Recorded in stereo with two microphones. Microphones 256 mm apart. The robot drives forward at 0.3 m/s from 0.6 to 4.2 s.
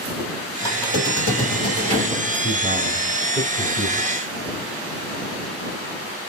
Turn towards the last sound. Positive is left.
turn(degrees=25)  # may be behind; listen again after turning